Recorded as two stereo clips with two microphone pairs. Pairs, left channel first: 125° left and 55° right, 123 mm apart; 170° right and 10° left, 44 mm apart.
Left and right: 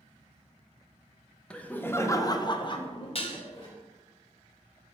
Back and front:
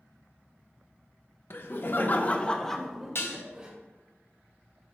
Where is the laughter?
160° right, 0.8 m; by 3.7 s 75° left, 1.0 m.